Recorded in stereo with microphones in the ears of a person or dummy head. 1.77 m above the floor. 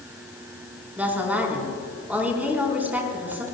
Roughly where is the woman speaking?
Centre.